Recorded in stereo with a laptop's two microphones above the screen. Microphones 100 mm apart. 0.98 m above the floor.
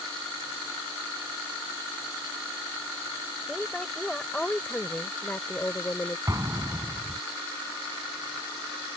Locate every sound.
3.5 s a woman speaking: centre (ahead or behind); by 6.2 s 20° left (ahead or behind)
6.3 s an explosion: 35° right (ahead or behind)